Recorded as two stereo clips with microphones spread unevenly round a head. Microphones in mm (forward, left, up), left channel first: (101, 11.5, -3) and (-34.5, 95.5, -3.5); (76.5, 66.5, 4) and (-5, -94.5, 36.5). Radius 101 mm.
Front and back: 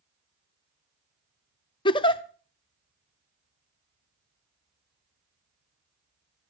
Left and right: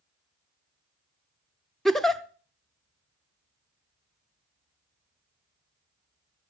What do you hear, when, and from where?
1.9 s a giggle: 45° right, 0.6 m